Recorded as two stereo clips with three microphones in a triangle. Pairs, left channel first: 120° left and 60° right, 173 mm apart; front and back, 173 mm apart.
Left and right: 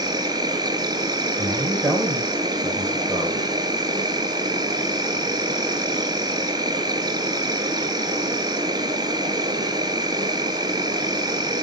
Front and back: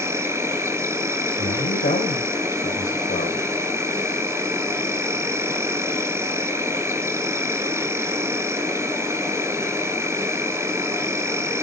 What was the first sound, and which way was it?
An insect, 110° right.